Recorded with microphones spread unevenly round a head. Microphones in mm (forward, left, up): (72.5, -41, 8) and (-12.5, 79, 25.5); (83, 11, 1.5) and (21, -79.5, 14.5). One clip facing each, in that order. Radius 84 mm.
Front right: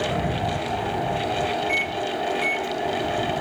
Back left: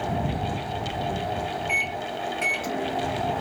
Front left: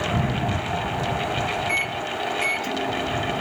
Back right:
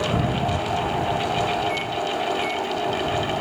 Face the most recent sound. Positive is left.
turn(degrees=85)